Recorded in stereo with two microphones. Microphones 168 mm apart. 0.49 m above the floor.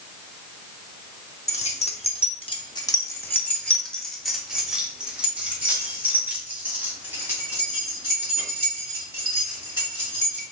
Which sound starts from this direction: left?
Keys jangling, at 1.5 s.